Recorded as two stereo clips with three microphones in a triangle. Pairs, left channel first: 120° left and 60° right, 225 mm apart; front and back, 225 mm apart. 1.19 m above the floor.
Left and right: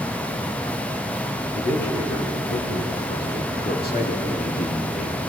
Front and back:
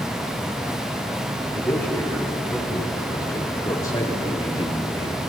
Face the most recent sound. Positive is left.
turn(degrees=65)